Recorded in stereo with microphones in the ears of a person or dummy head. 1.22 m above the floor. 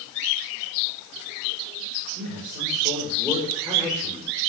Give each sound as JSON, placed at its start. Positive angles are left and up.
{"t": 2.1, "sound": "a man speaking", "side_deg": -30, "distance_m": 5.5}